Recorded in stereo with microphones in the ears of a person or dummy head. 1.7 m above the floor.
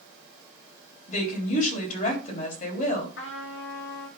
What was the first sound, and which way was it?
A woman speaking, 50° left (ahead or behind).